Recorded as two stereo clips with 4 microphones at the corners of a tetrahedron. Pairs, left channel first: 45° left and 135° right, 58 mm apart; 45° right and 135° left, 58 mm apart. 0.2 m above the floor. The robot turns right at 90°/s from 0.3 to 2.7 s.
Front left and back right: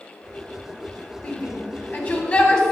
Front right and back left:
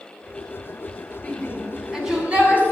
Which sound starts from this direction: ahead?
A shout, at 1.2 s.